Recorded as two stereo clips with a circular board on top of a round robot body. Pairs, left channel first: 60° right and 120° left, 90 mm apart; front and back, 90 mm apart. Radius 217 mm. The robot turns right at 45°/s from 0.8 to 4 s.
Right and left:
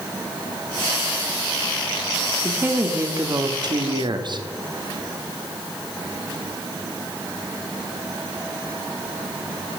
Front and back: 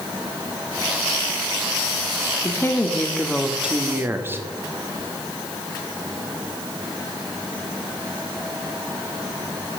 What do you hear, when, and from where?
2.4 s a woman speaking: 50° left, 1.9 m; by 4.4 s 120° left, 1.9 m